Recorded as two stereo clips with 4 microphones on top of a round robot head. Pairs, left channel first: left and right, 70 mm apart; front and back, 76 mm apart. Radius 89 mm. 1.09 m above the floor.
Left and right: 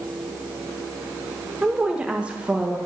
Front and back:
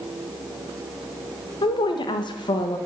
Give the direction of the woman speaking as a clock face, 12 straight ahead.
12 o'clock.